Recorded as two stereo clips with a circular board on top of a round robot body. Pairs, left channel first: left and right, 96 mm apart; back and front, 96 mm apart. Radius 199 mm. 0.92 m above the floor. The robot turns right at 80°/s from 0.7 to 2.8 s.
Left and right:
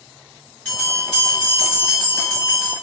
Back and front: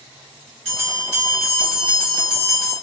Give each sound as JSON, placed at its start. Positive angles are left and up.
{"t": 0.7, "sound": "a bell", "azimuth_deg": 15, "distance_m": 1.7}